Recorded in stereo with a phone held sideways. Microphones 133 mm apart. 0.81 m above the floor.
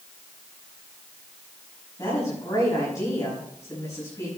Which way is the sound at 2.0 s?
25° left (ahead or behind).